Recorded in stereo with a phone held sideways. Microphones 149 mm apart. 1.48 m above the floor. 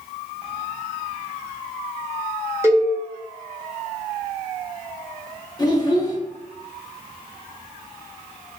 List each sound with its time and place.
2.6 s a cowbell: 20° right (ahead or behind), 0.9 m
5.6 s a child speaking: 25° left (ahead or behind), 0.9 m